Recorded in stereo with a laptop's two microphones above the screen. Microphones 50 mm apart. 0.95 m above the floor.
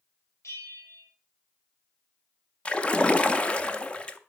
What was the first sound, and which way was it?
A bell, 75° left (ahead or behind).